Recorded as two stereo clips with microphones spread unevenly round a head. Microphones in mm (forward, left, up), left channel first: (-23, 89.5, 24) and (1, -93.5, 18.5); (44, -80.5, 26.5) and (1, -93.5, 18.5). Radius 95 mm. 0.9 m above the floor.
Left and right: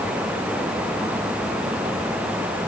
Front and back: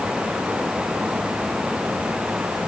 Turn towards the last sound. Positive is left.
No sound to turn to.